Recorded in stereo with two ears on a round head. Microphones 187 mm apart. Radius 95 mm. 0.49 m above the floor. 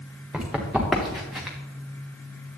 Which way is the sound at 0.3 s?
Centre (ahead or behind).